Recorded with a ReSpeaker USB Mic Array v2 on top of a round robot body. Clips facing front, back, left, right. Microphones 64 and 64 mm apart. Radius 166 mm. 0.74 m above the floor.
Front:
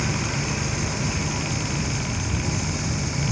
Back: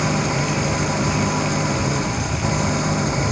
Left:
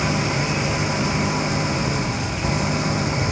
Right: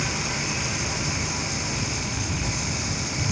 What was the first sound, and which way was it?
An engine running, 140° left.